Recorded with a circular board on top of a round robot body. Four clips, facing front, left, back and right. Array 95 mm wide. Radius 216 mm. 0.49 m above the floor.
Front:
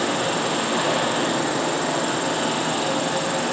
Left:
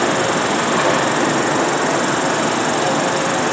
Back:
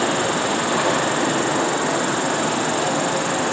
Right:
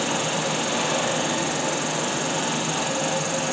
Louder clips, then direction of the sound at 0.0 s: Left 8 dB, back 2 dB; 105° left.